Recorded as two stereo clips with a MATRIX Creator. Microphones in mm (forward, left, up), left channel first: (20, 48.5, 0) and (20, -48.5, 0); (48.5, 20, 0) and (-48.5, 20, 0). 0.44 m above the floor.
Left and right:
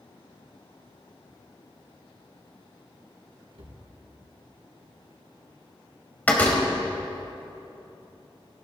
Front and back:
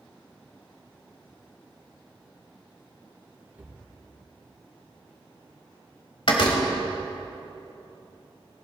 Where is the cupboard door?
105° right, 4 m.